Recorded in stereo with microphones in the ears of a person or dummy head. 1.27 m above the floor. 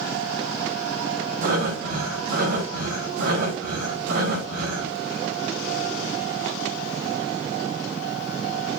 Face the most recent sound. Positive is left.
turn(degrees=-70)  # may be behind; listen again after turning